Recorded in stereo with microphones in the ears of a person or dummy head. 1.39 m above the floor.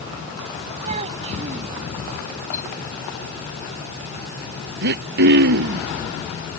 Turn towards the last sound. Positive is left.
turn(degrees=-55)  # may be behind; listen again after turning